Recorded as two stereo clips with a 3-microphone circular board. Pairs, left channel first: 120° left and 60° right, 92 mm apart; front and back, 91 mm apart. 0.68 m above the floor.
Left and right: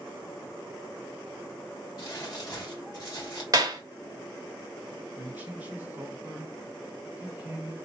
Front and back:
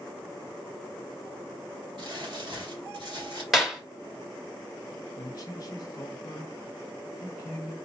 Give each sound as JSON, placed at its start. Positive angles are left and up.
{"t": 2.0, "sound": "crumpling", "azimuth_deg": 160, "distance_m": 1.9}
{"t": 3.5, "sound": "a clap", "azimuth_deg": -95, "distance_m": 1.2}
{"t": 5.2, "sound": "a man speaking", "azimuth_deg": 5, "distance_m": 1.0}